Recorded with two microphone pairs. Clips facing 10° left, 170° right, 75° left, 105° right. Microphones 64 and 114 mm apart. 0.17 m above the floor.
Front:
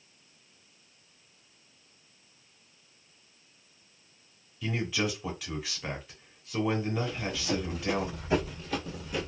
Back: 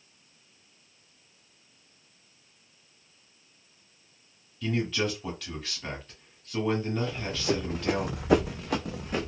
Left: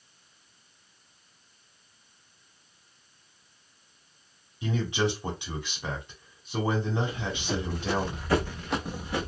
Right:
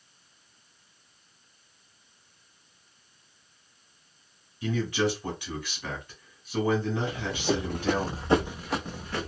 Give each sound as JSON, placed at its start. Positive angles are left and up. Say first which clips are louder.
{"t": 4.6, "sound": "a man speaking", "louder": "back 2 dB, right 1 dB", "azimuth_deg": 70, "distance_m": 1.1}
{"t": 7.1, "sound": "running footsteps", "louder": "back 2 dB, right 4 dB", "azimuth_deg": -110, "distance_m": 0.8}